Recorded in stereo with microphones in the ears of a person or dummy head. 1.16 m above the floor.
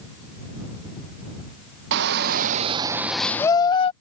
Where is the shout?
60° right (ahead or behind); by 3.9 s 40° left (ahead or behind).